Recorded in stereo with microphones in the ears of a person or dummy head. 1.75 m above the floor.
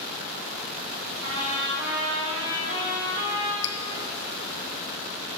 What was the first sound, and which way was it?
A trumpet, 50° right (ahead or behind).